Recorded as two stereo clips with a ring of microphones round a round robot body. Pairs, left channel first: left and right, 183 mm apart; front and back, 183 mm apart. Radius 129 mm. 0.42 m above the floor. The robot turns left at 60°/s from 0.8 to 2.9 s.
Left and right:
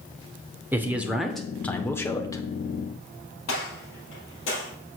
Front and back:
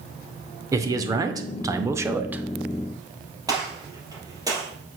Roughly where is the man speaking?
Behind right.